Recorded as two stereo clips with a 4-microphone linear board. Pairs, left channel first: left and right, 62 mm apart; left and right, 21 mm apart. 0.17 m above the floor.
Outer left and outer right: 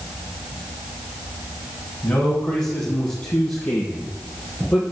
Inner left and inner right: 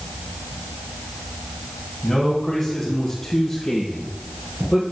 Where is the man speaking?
25° left (ahead or behind), 6.5 m; by 4.8 s 10° left (ahead or behind), 5.5 m.